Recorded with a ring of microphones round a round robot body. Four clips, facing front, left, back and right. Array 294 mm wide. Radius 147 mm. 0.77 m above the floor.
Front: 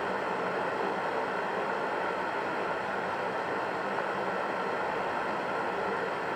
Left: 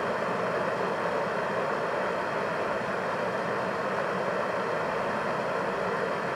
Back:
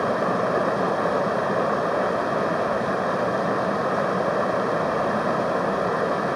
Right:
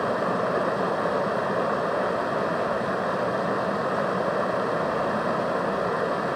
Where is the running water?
155° right, 0.8 m.